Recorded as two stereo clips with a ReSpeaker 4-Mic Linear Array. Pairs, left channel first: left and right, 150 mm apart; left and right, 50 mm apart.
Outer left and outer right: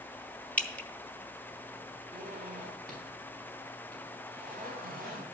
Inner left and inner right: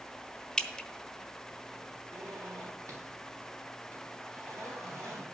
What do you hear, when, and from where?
0.6 s dripping: 10° left (ahead or behind), 0.6 m
2.1 s a zipper: 80° right, 3.5 m